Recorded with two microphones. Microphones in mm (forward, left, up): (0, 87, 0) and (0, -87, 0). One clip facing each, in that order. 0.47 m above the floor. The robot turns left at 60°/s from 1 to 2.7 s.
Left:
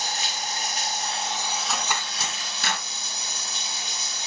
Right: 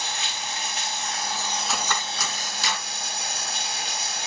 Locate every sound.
0.0 s running water: 40° left, 2.0 m; by 4.3 s 65° right, 2.0 m
1.7 s cutlery clinking: 5° right (ahead or behind), 2.5 m; by 2.8 s 60° left (ahead or behind), 2.5 m